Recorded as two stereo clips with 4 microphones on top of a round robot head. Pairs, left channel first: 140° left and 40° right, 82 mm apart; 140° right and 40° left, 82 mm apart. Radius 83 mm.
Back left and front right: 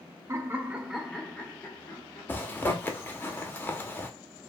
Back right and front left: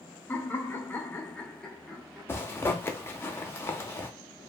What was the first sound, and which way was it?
Laughter, 85° right.